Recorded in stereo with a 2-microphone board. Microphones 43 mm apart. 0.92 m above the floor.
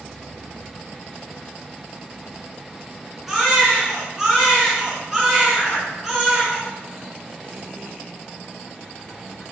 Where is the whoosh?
10° left (ahead or behind), 5 m.